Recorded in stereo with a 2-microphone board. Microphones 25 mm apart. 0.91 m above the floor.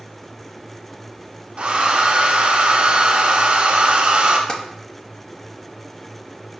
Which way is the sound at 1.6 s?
45° right (ahead or behind).